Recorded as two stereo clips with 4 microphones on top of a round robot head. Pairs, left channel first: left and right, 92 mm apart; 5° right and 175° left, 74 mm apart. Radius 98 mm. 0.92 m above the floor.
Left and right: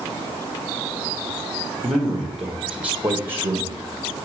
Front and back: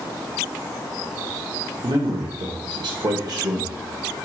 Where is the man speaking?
Straight behind, 1.5 m; by 3.8 s 140° right, 0.9 m.